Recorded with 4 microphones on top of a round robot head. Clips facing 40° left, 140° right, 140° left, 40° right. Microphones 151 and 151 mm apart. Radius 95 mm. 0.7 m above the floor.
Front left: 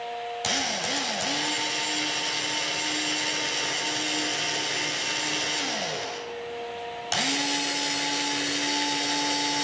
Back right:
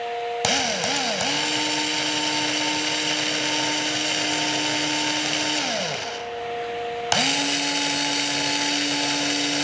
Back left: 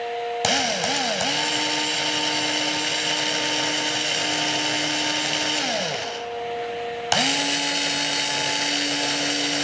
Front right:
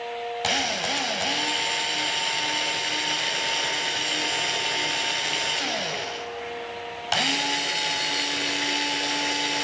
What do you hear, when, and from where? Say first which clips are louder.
0.4 s a drill: back right 6 dB, back left 4 dB; 175° right, 3 m